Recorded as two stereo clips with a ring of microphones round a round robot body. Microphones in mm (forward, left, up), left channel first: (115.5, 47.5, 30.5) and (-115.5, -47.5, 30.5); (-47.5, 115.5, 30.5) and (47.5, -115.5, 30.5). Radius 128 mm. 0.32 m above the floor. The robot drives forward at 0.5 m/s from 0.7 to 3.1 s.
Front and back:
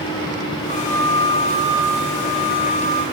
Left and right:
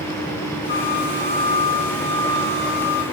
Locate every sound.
0.7 s a flute: 35° left, 2.5 m; by 3.0 s 60° left, 1.7 m